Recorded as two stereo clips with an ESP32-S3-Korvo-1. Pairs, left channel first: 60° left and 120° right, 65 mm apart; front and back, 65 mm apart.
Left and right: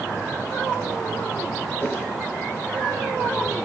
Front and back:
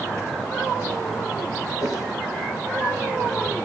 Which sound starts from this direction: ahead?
A whoosh, at 1.8 s.